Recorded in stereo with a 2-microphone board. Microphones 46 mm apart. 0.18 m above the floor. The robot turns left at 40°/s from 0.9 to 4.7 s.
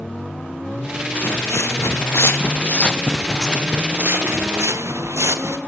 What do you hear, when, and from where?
1.1 s footsteps: 55° left (ahead or behind), 2 m; by 5.6 s 75° right (ahead or behind), 2 m